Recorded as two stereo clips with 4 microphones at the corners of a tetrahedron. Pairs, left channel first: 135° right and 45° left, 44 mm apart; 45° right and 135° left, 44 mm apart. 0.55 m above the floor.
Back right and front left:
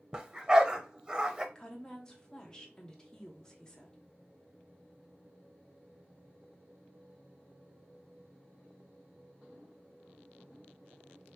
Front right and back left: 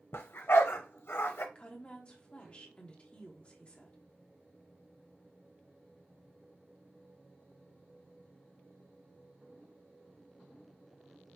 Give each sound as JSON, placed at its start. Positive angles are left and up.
{"t": 0.1, "sound": "a dog barking", "azimuth_deg": -25, "distance_m": 0.7}
{"t": 1.6, "sound": "a woman speaking", "azimuth_deg": -75, "distance_m": 1.0}